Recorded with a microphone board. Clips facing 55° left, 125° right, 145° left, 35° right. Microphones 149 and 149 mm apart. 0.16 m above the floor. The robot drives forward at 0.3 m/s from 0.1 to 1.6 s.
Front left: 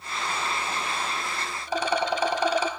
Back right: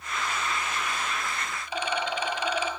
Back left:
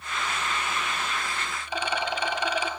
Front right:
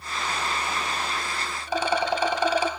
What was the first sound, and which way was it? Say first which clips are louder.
A rattle: front left 5 dB, front right 6 dB; 10° left.